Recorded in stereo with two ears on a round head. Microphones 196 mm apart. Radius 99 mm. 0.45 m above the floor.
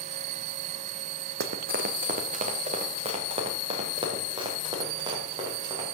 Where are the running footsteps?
50° right (ahead or behind), 1.1 m; by 5.9 s 20° right (ahead or behind), 4.5 m.